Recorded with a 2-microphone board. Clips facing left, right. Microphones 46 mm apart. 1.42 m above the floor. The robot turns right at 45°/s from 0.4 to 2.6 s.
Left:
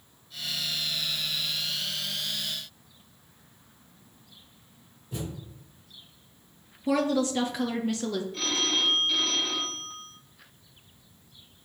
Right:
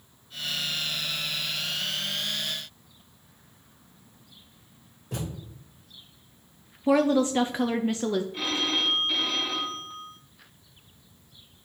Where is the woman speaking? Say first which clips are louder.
Right 4 dB; 30° right (ahead or behind), 0.6 m.